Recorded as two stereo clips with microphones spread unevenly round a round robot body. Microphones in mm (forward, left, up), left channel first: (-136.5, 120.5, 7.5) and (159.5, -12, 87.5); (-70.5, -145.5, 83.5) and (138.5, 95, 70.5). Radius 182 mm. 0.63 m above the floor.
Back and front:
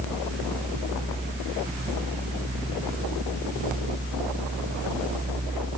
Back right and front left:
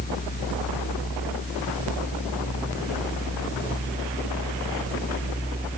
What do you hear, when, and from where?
Only background noise.